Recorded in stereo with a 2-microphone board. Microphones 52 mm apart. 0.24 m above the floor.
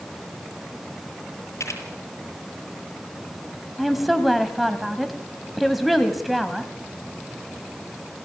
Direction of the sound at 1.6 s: 70° left (ahead or behind).